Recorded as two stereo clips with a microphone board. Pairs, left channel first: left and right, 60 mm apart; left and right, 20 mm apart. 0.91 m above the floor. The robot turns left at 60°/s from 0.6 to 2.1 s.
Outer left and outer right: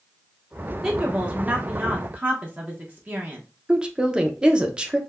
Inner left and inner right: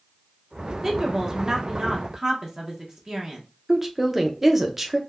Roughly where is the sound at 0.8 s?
Centre.